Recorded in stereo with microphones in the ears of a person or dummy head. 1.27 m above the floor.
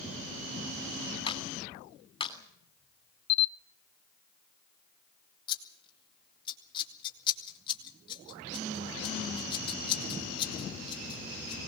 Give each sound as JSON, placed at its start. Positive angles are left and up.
{"t": 1.3, "sound": "a clap", "side_deg": 30, "distance_m": 3.0}
{"t": 3.3, "sound": "a camera shutter", "side_deg": 30, "distance_m": 0.9}
{"t": 5.5, "sound": "scissors", "side_deg": 30, "distance_m": 3.5}